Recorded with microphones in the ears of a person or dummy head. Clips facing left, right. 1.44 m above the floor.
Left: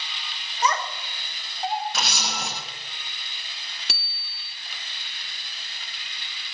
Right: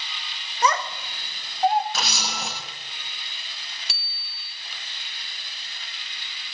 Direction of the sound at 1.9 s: 5° left (ahead or behind).